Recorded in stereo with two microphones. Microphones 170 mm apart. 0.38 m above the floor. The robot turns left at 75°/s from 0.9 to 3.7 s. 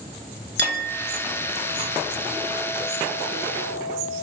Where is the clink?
75° right, 4.5 m; by 4.2 s 75° left, 4.5 m.